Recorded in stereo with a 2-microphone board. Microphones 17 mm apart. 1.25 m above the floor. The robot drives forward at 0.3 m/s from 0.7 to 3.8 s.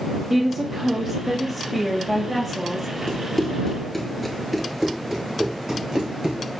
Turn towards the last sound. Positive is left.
turn(degrees=-55)  # may be behind; listen again after turning